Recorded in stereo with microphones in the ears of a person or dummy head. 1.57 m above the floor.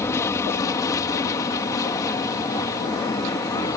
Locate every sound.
0.0 s an aircraft: 10° left (ahead or behind); by 3.8 s 15° left (ahead or behind)